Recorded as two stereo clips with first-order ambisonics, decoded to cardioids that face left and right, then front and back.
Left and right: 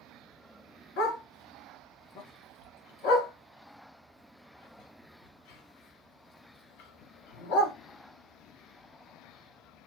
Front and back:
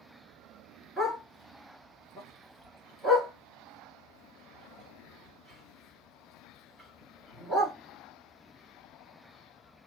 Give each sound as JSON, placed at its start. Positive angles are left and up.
{"t": 1.0, "sound": "a dog barking", "azimuth_deg": 95, "distance_m": 1.7}